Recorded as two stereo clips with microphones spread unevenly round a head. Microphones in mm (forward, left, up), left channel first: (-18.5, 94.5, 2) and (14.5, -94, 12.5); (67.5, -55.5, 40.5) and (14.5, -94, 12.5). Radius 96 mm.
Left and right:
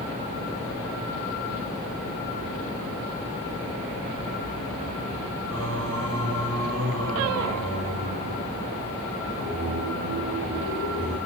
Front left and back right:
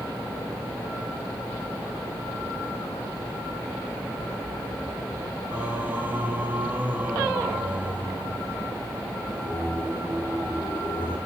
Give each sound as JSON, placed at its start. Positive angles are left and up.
{"t": 5.5, "sound": "singing", "azimuth_deg": -70, "distance_m": 3.5}